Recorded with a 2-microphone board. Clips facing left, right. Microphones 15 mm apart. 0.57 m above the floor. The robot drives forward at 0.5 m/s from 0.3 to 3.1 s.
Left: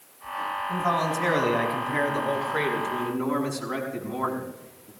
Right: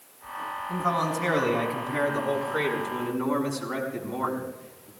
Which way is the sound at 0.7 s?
25° left (ahead or behind).